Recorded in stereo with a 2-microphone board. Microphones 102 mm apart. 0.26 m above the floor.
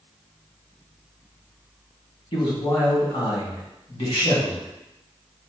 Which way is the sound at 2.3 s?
55° left (ahead or behind).